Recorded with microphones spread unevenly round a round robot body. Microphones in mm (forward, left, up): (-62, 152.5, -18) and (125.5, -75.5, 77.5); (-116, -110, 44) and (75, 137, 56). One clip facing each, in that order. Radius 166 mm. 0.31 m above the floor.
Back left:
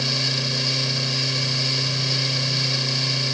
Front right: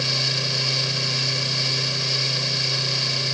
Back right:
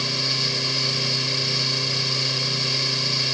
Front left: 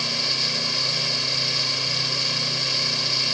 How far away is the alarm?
No alarm in this recording.